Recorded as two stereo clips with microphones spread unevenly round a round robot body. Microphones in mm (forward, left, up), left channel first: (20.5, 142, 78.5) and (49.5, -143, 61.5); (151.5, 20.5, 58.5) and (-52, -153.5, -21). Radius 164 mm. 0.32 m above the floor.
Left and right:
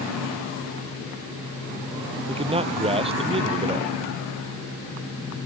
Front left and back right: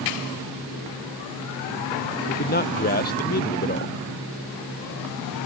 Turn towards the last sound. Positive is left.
turn(degrees=-15)